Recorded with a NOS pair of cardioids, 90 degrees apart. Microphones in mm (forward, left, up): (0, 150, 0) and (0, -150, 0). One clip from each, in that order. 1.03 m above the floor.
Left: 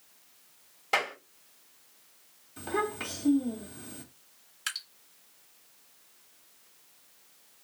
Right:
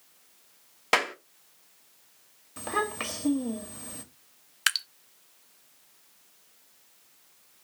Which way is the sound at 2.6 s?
55° right.